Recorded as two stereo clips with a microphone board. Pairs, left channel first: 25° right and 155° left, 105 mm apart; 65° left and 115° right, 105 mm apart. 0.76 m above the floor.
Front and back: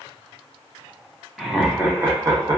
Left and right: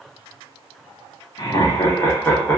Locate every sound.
1.4 s laughter: 75° left, 0.9 m; by 2.6 s 135° left, 0.9 m